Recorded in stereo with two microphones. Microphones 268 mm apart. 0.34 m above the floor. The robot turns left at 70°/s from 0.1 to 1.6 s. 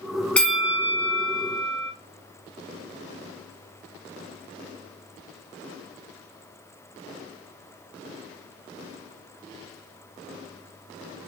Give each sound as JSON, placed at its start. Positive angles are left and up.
{"t": 0.4, "sound": "a bell", "side_deg": 5, "distance_m": 0.7}